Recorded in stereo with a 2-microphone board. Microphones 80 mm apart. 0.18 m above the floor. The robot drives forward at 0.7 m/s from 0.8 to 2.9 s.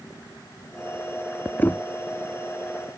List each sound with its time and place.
1.6 s knocking: 25° left (ahead or behind); by 1.8 s 20° left (ahead or behind)